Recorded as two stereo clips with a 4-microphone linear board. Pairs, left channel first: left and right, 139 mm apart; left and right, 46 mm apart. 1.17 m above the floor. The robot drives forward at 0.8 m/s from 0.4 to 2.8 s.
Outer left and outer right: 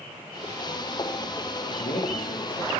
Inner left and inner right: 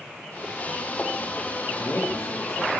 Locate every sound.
1.7 s a man speaking: 80° left, 3 m; by 2.7 s 70° left (ahead or behind), 3 m